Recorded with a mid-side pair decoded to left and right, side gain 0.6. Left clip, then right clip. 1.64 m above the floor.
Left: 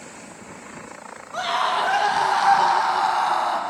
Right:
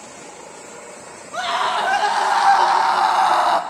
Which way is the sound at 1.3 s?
20° right.